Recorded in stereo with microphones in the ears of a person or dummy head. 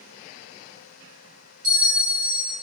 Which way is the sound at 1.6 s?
75° right (ahead or behind).